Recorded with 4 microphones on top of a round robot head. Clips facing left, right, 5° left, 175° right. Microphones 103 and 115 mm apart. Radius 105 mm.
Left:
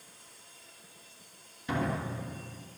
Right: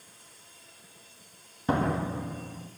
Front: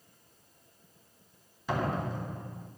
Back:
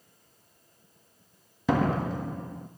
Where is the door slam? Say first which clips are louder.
Right 5 dB, back 6 dB; 150° right, 1.3 m.